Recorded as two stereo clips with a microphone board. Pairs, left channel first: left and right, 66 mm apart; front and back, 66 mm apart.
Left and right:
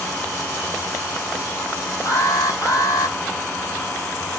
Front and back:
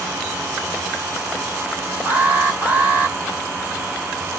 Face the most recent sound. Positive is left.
turn(degrees=115)